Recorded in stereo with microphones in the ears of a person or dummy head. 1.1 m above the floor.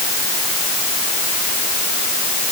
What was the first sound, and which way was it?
Only background noise.